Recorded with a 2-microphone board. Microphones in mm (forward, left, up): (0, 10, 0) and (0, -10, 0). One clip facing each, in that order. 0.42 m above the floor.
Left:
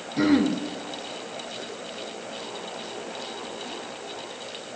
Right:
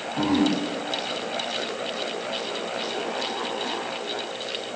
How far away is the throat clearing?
About 3 m.